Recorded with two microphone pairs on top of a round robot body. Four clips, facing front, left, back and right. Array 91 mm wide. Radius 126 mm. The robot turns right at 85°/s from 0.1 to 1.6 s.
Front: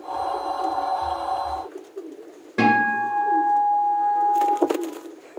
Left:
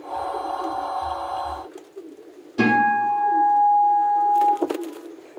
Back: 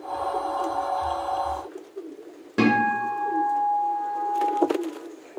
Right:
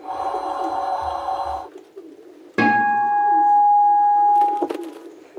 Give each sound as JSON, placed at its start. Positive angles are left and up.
{"t": 2.6, "sound": "a guitar", "azimuth_deg": -100, "distance_m": 2.5}